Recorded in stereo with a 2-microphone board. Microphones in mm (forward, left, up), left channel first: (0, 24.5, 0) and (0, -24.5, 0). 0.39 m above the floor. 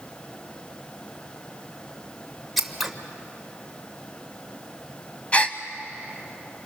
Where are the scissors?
Centre (ahead or behind), 1.3 m.